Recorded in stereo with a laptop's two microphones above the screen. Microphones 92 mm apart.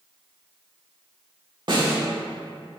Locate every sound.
1.7 s a snare drum: 60° right (ahead or behind), 2.5 m